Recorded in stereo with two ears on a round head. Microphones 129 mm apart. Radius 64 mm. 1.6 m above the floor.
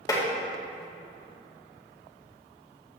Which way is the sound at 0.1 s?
25° left (ahead or behind).